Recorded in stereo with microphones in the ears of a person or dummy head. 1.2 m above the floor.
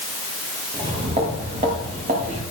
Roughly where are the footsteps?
Right.